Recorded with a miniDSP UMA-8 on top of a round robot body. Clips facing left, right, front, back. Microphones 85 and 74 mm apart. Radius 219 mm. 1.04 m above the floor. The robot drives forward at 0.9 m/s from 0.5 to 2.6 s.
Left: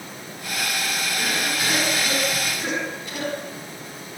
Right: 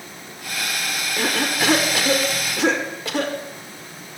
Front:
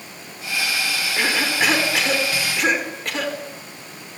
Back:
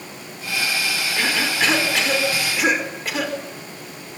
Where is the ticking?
No ticking in this recording.